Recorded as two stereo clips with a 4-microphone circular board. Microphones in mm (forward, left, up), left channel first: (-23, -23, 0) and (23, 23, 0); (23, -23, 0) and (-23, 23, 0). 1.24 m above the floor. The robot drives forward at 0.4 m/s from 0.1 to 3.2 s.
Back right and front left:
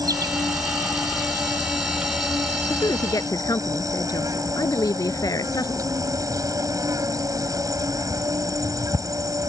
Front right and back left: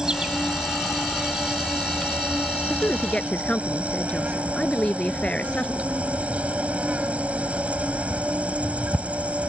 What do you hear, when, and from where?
0.0 s an insect: 55° left; by 9.5 s 65° left
2.7 s a woman speaking: 115° right